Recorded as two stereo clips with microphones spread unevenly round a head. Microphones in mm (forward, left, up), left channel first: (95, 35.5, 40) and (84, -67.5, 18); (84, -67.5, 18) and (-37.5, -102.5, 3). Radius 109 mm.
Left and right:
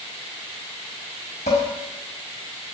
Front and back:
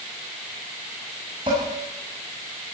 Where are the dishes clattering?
125° left, 6 m.